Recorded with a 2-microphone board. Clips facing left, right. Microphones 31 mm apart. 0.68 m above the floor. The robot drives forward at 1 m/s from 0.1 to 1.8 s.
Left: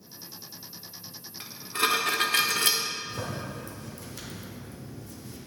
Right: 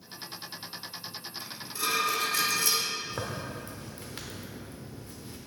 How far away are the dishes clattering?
About 1.1 m.